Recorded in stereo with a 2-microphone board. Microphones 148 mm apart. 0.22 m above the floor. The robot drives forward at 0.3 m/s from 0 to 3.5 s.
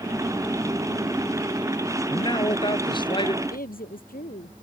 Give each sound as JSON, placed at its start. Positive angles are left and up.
{"t": 2.1, "sound": "a man speaking", "side_deg": 30}
{"t": 3.4, "sound": "a woman speaking", "side_deg": 75}